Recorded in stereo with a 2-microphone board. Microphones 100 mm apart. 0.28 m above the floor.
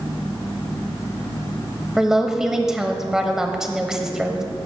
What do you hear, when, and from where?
2.0 s a woman speaking: 5° right (ahead or behind), 1.0 m